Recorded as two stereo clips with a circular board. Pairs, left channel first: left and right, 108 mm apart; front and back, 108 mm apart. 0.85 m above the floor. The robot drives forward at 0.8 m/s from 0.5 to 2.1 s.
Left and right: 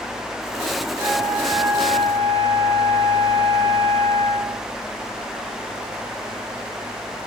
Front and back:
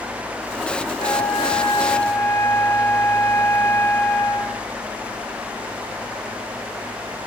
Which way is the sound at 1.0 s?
25° right.